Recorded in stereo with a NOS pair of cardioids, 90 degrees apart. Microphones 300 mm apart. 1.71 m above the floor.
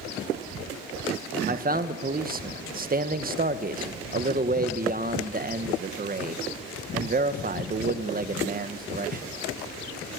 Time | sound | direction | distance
1.5 | a man speaking | 30° right | 1.6 m